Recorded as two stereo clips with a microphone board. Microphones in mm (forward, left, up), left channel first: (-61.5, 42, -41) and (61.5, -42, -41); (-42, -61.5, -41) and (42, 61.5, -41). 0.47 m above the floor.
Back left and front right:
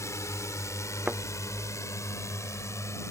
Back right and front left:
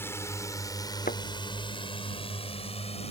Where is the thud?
115° right.